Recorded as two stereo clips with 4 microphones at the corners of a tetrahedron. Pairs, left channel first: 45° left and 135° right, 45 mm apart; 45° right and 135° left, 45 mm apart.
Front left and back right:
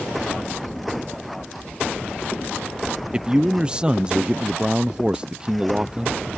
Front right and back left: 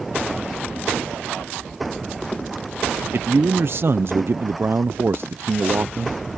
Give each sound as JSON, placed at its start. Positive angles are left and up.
{"t": 3.1, "sound": "a man speaking", "azimuth_deg": 160}